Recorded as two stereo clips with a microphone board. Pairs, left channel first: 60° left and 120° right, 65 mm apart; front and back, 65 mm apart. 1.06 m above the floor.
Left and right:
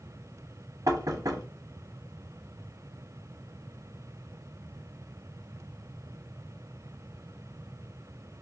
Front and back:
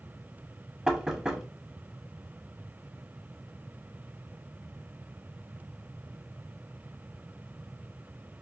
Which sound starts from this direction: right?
Knocking, at 0.9 s.